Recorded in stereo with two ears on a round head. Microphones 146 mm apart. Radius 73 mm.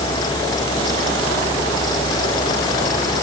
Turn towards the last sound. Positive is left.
No sound to turn to.